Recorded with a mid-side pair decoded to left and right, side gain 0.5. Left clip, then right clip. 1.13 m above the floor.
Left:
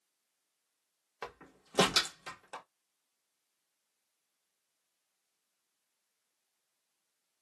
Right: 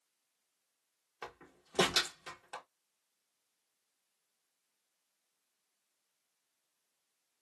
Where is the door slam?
25° left, 1.1 m.